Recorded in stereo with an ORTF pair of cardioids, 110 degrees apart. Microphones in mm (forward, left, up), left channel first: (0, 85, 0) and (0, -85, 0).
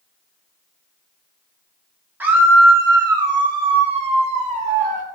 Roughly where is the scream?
Ahead.